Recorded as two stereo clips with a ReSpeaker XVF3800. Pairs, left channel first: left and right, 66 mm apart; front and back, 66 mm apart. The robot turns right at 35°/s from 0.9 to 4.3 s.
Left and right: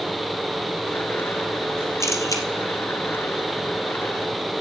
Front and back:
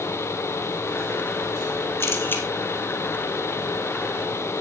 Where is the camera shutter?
45° left, 3 m; by 2.4 s 60° left, 3 m.